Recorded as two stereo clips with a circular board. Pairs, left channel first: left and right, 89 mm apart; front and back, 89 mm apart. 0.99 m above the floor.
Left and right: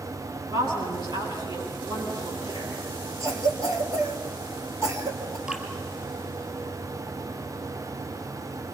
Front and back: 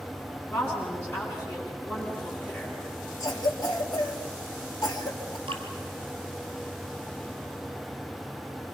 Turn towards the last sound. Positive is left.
turn(degrees=-165)